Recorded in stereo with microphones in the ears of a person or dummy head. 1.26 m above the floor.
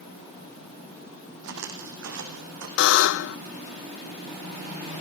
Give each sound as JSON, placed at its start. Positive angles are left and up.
{"t": 1.4, "sound": "footsteps", "side_deg": -70, "distance_m": 3.5}
{"t": 2.8, "sound": "a buzzer", "side_deg": 70, "distance_m": 0.6}